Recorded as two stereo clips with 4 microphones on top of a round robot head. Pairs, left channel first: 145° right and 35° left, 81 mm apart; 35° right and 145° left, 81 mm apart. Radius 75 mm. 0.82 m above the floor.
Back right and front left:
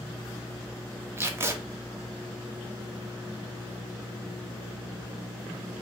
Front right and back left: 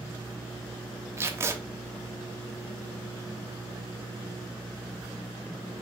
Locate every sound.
1.2 s tape being pulled: 90° left, 0.8 m